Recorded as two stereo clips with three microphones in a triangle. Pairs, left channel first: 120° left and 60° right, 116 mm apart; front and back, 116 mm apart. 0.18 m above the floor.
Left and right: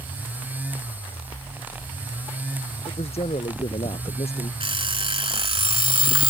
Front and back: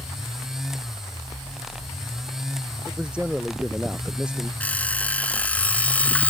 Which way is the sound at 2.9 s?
100° left.